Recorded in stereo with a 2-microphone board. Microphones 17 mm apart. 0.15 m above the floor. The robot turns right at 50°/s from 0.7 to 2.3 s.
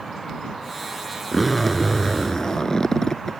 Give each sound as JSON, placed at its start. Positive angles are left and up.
{"t": 1.3, "sound": "a zipper", "azimuth_deg": -10}